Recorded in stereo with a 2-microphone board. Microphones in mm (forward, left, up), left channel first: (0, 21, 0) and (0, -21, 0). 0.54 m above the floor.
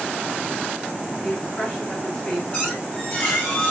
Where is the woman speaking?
25° left (ahead or behind), 6 m; by 2.4 s 30° left (ahead or behind), 6.5 m.